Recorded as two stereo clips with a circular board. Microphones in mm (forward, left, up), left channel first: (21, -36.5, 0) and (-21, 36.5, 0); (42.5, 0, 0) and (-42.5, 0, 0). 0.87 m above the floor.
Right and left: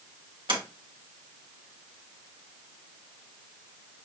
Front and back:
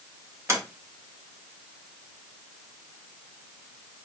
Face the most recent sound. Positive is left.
turn(degrees=125)